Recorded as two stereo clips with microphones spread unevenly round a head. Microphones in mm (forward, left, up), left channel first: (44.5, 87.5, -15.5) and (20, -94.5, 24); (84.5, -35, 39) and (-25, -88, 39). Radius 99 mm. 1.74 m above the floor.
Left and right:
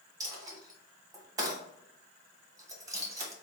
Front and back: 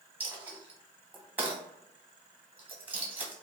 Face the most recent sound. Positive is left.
turn(degrees=-95)